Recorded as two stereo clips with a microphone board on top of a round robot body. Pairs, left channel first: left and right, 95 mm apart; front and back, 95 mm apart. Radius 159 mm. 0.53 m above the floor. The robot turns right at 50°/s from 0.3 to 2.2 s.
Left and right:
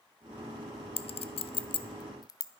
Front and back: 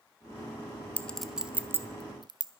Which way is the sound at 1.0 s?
75° left.